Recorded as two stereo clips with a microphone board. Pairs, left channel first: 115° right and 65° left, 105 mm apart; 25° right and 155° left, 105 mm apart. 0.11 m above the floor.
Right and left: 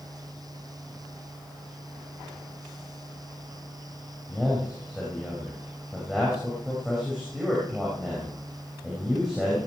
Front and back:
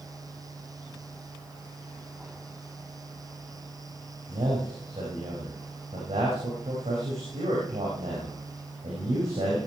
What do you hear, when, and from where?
4.3 s a man speaking: 150° left, 6.5 m